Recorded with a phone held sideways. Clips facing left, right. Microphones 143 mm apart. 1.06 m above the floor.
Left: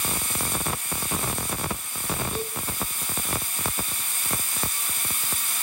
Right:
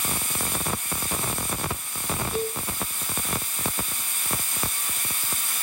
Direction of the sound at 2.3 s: Centre (ahead or behind).